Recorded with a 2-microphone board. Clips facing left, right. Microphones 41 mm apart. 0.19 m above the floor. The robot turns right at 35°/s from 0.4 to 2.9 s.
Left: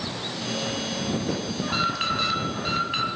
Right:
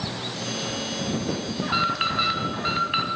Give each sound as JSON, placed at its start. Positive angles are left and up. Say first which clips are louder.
{"t": 1.6, "sound": "an alarm", "louder": "right 2 dB", "side_deg": -10, "distance_m": 1.5}